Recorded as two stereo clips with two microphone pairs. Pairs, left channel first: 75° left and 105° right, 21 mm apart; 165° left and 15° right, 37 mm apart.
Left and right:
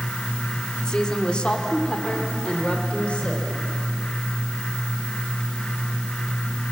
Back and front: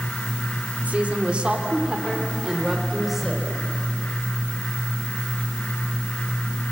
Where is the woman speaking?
25° left, 2 m; by 3.5 s 65° left, 3.5 m.